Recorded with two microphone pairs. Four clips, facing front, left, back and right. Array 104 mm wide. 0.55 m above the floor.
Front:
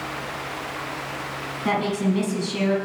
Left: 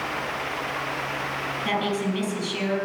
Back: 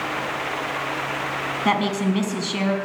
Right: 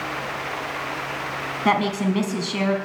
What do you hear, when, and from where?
1.6 s a woman speaking: 125° right, 5 m